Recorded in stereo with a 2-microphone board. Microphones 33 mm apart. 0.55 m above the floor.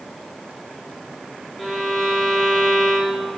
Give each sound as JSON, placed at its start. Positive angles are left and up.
{"t": 1.6, "sound": "a violin", "side_deg": 10, "distance_m": 0.9}